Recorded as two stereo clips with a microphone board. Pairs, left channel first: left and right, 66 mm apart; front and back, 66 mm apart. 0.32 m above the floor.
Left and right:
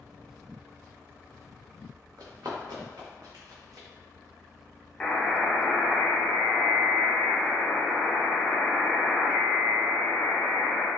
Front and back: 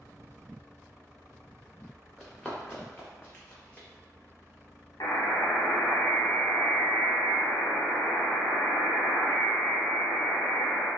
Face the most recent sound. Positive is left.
turn(degrees=10)